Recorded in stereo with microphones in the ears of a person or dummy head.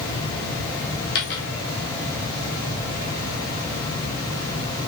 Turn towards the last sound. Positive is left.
turn(degrees=55)  # may be behind; listen again after turning